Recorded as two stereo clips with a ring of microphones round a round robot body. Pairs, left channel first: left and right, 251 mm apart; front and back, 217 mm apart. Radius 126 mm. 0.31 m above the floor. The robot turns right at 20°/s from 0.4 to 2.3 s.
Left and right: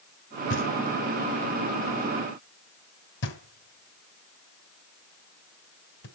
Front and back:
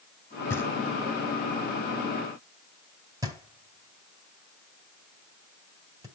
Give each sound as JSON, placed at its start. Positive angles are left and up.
{"t": 0.5, "sound": "knocking", "azimuth_deg": 75, "distance_m": 1.5}